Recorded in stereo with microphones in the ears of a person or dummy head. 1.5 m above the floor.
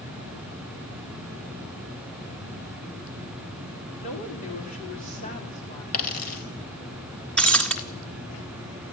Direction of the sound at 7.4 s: 10° left (ahead or behind).